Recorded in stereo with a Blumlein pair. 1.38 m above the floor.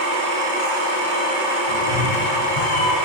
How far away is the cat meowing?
About 2 m.